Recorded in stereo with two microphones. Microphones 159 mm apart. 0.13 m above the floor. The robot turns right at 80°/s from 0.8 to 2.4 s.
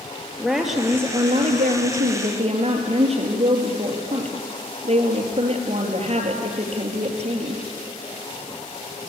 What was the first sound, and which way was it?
A woman speaking, straight behind.